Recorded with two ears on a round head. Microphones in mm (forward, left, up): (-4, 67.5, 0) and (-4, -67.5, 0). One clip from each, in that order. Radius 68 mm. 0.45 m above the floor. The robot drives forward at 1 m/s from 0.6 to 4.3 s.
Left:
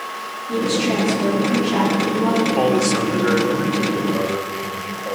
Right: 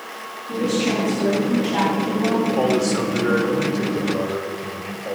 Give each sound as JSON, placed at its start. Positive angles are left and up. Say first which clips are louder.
{"t": 0.5, "sound": "a woman speaking", "louder": "left 2 dB", "side_deg": 85, "distance_m": 7.0}
{"t": 2.6, "sound": "a man speaking", "louder": "left 2 dB", "side_deg": 30, "distance_m": 1.5}